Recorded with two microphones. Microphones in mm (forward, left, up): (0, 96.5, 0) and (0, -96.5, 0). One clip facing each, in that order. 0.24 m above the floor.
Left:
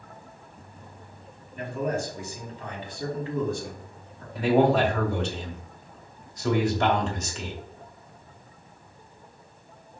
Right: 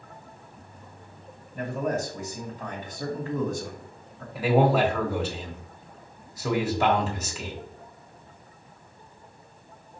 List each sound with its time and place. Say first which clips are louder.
1.6 s a man speaking: right 1 dB; 45° right (ahead or behind), 1.7 m
4.3 s a man speaking: left 1 dB; 5° right (ahead or behind), 1.4 m